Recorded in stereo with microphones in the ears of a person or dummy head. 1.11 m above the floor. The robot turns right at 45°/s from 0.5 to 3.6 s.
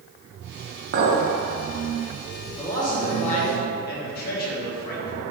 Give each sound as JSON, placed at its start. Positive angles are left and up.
{"t": 0.9, "sound": "a clink", "side_deg": -60, "distance_m": 0.9}
{"t": 2.6, "sound": "a man speaking", "azimuth_deg": 5, "distance_m": 1.2}